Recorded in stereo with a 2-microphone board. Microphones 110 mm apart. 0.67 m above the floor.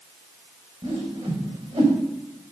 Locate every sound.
0.8 s a whoosh: 60° right (ahead or behind), 4 m